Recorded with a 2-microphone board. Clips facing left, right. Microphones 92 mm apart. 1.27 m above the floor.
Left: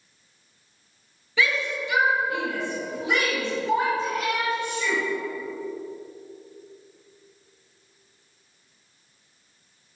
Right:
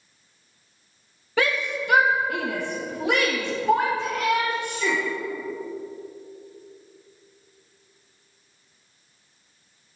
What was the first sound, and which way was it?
A shout, 50° right (ahead or behind).